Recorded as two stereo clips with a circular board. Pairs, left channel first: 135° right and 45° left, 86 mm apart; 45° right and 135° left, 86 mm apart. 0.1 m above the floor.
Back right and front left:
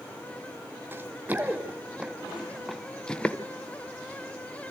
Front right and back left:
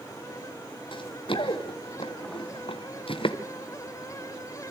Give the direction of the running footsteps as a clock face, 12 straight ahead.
1 o'clock.